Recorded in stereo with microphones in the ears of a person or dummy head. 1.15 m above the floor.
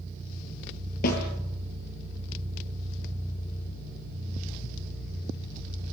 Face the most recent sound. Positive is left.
turn(degrees=50)  # may be behind; listen again after turning